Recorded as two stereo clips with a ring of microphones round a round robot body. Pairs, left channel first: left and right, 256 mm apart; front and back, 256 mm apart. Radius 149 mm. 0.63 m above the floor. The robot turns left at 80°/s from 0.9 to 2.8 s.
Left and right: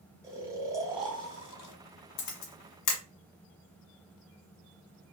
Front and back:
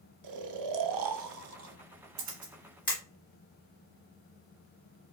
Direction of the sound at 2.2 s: 125° left.